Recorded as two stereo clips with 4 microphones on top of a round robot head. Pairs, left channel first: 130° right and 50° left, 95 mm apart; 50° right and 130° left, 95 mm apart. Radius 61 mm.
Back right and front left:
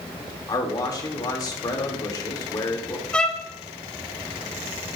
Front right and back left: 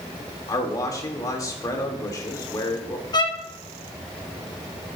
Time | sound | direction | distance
0.5 | a man speaking | 95° right | 1.9 m
3.1 | a violin | 55° right | 1.1 m